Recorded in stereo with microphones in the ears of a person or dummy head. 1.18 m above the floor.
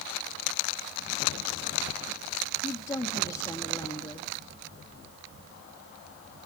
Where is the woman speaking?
20° left (ahead or behind), 1.7 m.